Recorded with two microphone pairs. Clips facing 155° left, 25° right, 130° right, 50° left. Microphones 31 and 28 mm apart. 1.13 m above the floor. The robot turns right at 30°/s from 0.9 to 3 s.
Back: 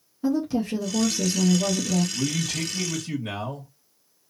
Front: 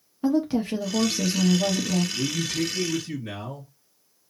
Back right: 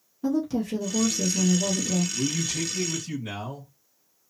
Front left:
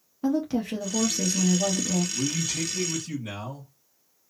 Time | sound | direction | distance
0.2 | a woman speaking | 5° left | 0.9 m
2.1 | a man speaking | 115° left | 1.5 m